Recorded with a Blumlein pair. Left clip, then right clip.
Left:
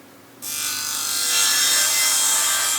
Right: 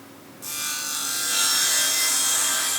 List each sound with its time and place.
0.4 s sawing: 15° left, 2 m